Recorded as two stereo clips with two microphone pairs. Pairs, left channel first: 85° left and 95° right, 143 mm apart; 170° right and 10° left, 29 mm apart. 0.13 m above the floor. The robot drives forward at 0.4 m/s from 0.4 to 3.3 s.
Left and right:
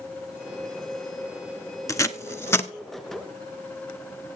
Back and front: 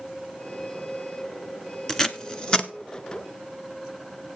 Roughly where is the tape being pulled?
Behind left.